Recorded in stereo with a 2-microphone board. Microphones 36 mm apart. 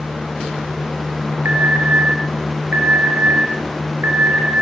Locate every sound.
1.4 s an alarm: 90° right, 8 m